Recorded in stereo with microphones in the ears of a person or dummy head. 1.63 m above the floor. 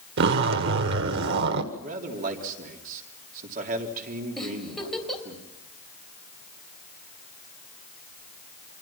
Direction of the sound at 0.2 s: 65° right (ahead or behind).